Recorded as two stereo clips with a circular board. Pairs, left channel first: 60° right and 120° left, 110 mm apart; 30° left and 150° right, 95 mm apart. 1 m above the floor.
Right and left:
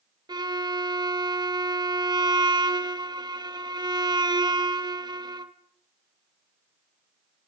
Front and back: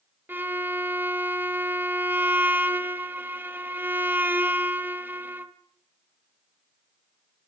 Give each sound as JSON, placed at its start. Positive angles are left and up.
{"t": 0.3, "sound": "a violin", "azimuth_deg": 150, "distance_m": 0.9}